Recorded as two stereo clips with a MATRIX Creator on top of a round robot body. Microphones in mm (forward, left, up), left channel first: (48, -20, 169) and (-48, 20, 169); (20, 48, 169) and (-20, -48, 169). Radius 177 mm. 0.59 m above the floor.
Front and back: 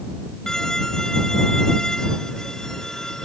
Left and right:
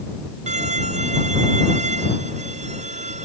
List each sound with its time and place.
0.5 s a violin: 110° right